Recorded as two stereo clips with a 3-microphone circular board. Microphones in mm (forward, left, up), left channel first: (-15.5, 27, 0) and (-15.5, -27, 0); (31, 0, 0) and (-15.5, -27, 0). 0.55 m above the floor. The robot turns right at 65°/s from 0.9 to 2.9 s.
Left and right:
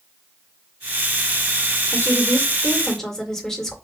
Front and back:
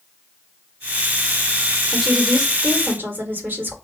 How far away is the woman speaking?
About 1.6 m.